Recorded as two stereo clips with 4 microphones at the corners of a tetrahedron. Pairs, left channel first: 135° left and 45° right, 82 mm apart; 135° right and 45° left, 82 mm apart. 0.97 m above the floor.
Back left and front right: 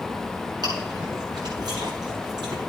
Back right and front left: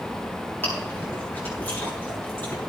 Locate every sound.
0.6 s chewing: 70° right, 7.5 m